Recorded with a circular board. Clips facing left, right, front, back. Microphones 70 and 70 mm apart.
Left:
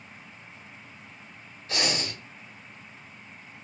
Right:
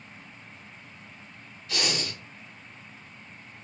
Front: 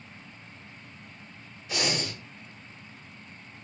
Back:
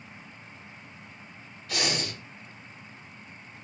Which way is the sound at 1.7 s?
70° left.